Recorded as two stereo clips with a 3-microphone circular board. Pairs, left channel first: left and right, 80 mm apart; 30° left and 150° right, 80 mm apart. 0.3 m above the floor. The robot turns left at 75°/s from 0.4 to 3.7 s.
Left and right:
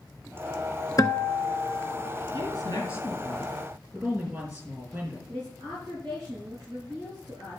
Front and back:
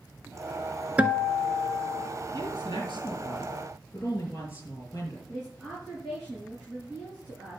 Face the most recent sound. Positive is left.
turn(degrees=-55)